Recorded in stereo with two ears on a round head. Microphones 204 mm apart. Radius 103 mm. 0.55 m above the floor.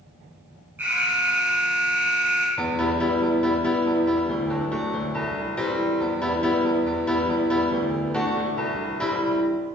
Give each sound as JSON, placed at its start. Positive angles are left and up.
{"t": 0.8, "sound": "an alarm", "side_deg": -10, "distance_m": 4.5}
{"t": 2.6, "sound": "a piano", "side_deg": 5, "distance_m": 2.0}